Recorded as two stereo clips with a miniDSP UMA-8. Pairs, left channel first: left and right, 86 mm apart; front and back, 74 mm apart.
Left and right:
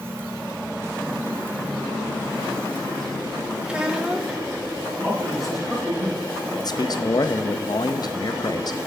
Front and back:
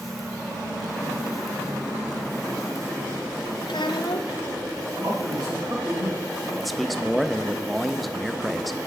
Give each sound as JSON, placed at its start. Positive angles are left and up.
{"t": 3.7, "sound": "a child speaking", "azimuth_deg": -10, "distance_m": 0.9}
{"t": 5.0, "sound": "a man speaking", "azimuth_deg": -175, "distance_m": 5.0}
{"t": 6.6, "sound": "a man speaking", "azimuth_deg": 90, "distance_m": 0.6}